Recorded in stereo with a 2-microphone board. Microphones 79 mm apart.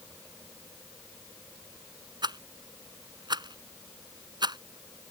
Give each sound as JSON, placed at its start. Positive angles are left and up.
{"t": 2.2, "sound": "a rattle", "side_deg": -70}